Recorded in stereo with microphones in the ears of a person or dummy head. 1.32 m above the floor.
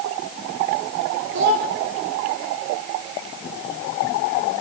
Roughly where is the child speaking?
Right.